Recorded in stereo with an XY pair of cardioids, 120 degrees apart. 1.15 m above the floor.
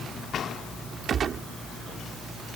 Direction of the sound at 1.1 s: 45° right.